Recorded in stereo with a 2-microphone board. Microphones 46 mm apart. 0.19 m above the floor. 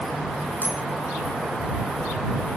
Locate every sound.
0.6 s a bicycle bell: 50° left (ahead or behind)